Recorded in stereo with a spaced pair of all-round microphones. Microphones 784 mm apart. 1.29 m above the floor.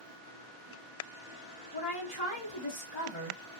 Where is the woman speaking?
55° left (ahead or behind), 1.5 m.